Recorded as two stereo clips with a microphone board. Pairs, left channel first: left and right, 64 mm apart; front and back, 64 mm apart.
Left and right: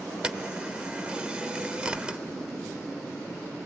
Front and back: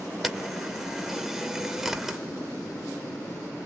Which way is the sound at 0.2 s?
100° right.